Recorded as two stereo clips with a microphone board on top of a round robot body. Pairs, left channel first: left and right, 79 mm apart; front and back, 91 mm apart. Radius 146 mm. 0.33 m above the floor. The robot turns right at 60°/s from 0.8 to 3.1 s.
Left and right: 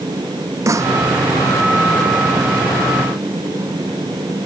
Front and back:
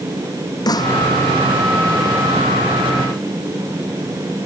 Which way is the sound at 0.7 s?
45° right.